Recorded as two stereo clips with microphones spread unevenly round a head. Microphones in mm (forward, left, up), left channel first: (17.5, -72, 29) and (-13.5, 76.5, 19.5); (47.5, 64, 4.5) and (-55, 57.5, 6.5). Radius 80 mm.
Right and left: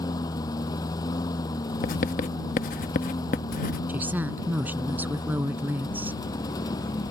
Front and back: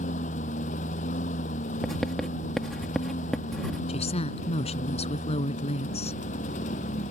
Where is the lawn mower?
10° right.